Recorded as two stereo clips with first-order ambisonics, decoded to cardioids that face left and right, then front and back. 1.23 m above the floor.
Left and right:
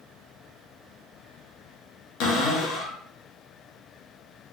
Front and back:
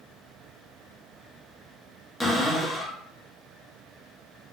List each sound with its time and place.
2.2 s a cupboard door: 85° left, 1.1 m